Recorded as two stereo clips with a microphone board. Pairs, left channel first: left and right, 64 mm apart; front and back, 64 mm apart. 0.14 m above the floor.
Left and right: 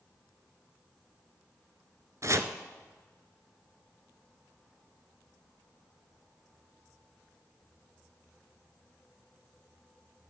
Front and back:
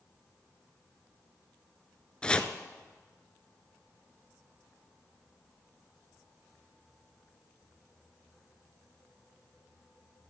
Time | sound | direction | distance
2.2 | chopping | 70° right | 0.7 m